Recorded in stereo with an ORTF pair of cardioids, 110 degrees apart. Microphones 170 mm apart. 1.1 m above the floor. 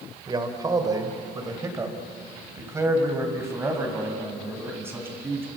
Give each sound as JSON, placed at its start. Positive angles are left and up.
{"t": 0.3, "sound": "a man speaking", "azimuth_deg": -25, "distance_m": 3.5}